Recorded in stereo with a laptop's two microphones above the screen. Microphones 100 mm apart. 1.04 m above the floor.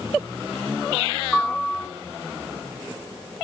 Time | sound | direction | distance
1.3 | a piano | 10° left (ahead or behind) | 1.9 m